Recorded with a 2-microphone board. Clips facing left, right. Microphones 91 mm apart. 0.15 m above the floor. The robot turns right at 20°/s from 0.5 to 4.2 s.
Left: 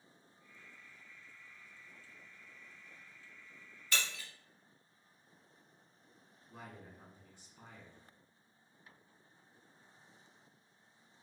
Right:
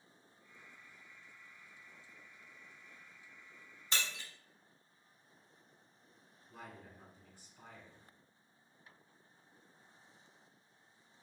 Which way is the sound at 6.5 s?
20° left (ahead or behind).